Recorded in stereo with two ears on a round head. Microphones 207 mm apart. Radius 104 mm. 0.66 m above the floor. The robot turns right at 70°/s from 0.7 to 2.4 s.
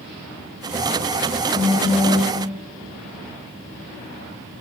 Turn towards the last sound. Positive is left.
turn(degrees=45)